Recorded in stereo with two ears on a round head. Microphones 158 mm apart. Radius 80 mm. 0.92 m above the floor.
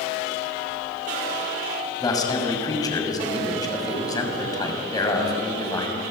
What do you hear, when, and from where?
2.0 s a man speaking: 20° left (ahead or behind), 6 m